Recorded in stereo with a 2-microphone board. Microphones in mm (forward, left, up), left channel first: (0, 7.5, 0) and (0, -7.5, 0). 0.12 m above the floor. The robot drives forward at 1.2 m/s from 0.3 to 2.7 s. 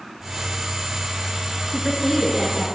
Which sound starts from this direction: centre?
A woman speaking, at 1.7 s.